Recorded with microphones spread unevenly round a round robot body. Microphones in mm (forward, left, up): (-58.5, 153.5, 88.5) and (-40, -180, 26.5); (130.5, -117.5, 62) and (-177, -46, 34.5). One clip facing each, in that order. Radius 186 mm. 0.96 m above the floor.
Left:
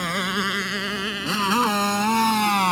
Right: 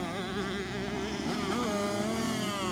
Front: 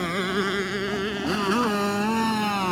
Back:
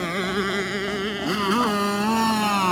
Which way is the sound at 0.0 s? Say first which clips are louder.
Left 5 dB, even; 75° left.